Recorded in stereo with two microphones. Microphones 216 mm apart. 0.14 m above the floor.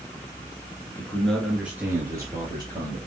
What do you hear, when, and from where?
1.0 s a man speaking: 15° left (ahead or behind), 1.5 m; by 3.0 s 20° right (ahead or behind), 3 m